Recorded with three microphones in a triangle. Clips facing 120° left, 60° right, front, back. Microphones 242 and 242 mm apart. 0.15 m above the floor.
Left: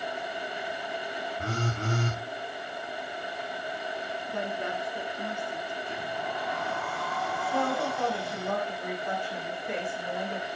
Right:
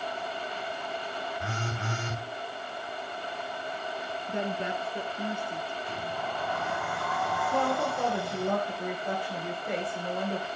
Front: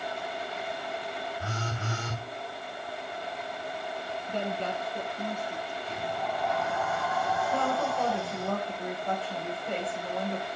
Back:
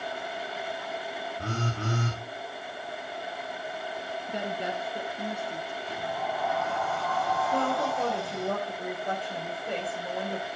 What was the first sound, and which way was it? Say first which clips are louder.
A phone buzzing: left 4 dB, back 4 dB; 165° left.